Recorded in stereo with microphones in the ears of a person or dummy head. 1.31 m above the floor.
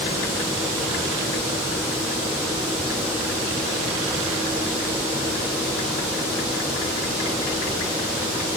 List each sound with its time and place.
Only background noise.